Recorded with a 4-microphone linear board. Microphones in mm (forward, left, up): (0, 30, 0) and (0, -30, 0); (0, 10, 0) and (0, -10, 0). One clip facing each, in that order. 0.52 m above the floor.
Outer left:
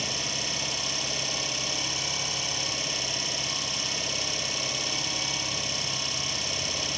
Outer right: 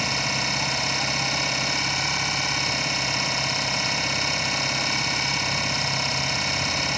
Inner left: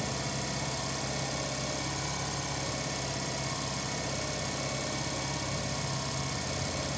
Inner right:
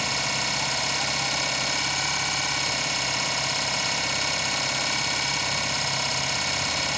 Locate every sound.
0.0 s an engine running: 55° right (ahead or behind), 1.5 m